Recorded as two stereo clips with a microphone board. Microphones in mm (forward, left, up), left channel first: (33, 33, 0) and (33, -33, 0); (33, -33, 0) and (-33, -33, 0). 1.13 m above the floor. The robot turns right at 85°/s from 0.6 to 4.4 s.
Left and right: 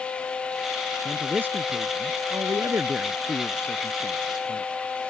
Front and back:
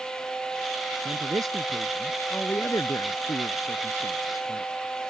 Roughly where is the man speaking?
Behind.